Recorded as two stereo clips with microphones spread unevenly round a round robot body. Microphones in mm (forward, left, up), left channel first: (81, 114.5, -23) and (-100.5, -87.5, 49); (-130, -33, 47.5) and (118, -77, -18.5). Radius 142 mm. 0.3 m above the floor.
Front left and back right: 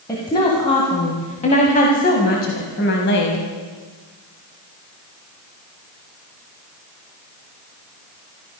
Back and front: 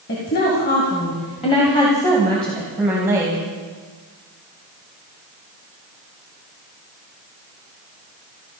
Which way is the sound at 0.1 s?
115° left.